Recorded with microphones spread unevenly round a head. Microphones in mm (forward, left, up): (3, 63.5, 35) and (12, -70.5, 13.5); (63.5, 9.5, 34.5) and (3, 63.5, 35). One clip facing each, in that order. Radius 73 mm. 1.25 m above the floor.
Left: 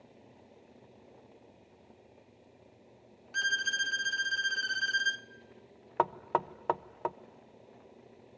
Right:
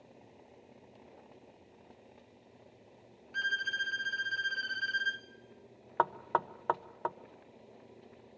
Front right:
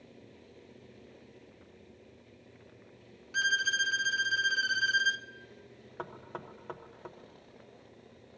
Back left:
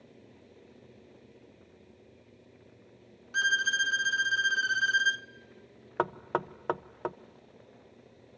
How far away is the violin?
About 0.7 m.